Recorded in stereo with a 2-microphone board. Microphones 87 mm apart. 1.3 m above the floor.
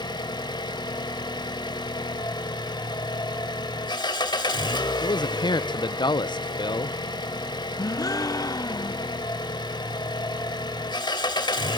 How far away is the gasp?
About 0.7 m.